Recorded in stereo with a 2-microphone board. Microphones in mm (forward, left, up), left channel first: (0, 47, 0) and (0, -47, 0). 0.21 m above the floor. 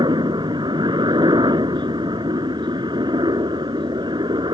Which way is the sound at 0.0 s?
50° right (ahead or behind).